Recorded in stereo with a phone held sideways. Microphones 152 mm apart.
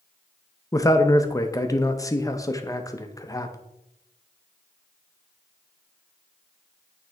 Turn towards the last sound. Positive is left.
turn(degrees=20)  # may be behind; listen again after turning